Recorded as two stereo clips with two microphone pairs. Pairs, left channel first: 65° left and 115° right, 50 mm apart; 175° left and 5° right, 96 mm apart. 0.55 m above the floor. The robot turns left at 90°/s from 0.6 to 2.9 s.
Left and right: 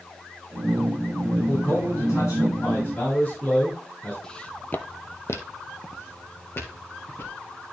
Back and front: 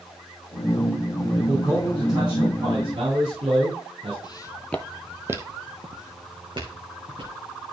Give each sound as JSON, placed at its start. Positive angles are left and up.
{"t": 1.4, "sound": "a man speaking", "azimuth_deg": 130, "distance_m": 6.0}
{"t": 4.2, "sound": "footsteps", "azimuth_deg": 140, "distance_m": 1.0}